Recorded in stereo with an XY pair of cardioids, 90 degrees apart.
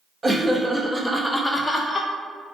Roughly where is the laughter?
Ahead right.